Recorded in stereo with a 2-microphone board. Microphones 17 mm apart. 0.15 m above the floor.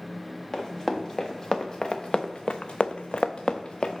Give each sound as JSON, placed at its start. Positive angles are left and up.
{"t": 0.5, "sound": "running footsteps", "side_deg": 15, "distance_m": 2.0}